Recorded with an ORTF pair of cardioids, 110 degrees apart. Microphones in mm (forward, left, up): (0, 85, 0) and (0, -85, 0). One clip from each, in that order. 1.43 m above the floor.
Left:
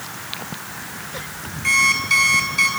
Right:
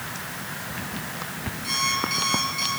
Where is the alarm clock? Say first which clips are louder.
Left 9 dB; 50° left, 10 m.